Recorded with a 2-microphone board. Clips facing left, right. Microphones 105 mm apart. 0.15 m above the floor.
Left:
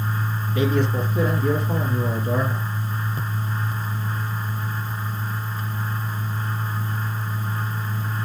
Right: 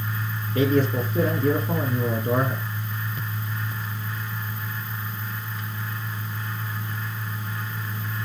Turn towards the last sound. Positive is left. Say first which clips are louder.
# right 1 dB
turn(degrees=-40)  # may be behind; listen again after turning